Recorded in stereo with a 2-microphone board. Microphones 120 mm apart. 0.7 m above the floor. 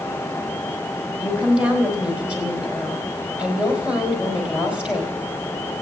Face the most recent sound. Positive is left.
turn(degrees=-10)  # may be behind; listen again after turning